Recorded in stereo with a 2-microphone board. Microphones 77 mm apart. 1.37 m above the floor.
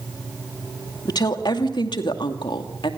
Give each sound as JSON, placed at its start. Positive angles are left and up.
{"t": 1.1, "sound": "a woman speaking", "side_deg": 60, "distance_m": 2.5}